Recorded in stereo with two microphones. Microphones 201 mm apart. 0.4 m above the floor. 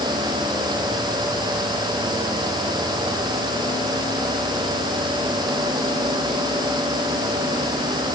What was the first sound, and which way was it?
Only background noise.